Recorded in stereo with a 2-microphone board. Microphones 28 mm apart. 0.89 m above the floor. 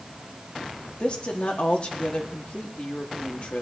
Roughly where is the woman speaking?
Left.